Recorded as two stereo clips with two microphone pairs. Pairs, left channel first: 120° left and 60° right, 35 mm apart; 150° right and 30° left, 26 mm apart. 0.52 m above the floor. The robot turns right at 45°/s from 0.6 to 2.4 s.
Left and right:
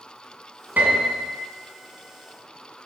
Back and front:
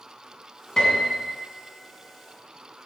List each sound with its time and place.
0.8 s a piano: 85° right, 2 m; by 1.3 s 65° right, 2 m